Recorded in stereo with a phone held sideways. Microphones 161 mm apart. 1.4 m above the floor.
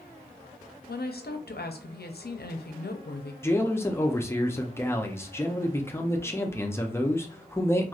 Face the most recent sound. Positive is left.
turn(degrees=15)  # may be behind; listen again after turning